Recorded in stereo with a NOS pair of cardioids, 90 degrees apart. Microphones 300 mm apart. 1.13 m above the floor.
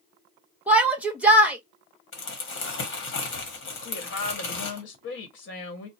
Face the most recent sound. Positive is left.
turn(degrees=45)